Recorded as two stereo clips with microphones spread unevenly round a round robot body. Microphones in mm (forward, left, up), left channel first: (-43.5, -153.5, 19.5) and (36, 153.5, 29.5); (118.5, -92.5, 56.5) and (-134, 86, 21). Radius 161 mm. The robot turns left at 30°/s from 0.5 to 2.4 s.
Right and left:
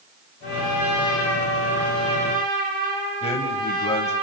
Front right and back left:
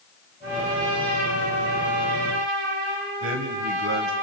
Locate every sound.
0.4 s a trumpet: 165° right, 7.5 m; by 4.2 s 140° left, 7.5 m
3.2 s a man speaking: 175° right, 2.5 m